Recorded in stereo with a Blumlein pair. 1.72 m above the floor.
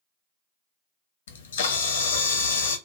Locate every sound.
1.3 s a camera shutter: 65° left, 0.5 m